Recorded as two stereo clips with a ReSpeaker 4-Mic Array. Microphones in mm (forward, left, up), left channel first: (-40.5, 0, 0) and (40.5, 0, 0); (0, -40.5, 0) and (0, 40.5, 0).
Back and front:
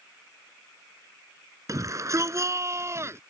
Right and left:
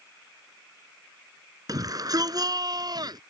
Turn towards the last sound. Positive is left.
turn(degrees=55)